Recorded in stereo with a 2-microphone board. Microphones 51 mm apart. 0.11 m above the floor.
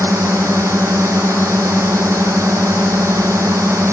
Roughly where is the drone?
Right.